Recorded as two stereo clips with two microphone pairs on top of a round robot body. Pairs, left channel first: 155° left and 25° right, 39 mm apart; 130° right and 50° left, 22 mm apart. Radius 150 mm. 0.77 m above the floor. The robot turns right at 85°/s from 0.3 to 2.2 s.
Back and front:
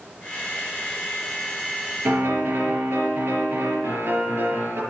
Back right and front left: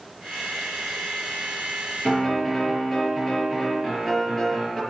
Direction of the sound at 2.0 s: 60° right.